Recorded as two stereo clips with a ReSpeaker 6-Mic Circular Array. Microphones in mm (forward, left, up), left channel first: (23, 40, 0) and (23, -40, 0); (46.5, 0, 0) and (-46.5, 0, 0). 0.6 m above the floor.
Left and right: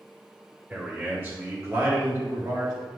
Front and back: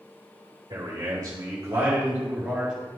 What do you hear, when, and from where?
0.7 s a man speaking: 155° right, 2.5 m; by 2.7 s 100° right, 1.9 m